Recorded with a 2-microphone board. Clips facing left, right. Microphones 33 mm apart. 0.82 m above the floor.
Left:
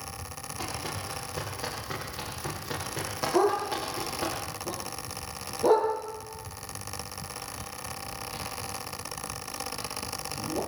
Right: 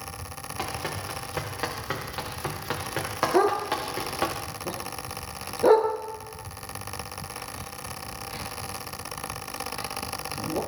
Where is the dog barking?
40° right (ahead or behind), 4 m.